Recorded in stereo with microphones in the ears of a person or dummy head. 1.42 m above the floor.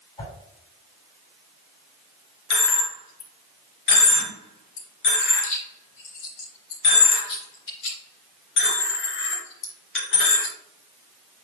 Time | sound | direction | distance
0.2 | a whoosh | 20° left (ahead or behind) | 3.5 m
2.5 | a dropped coin | 65° left (ahead or behind) | 3 m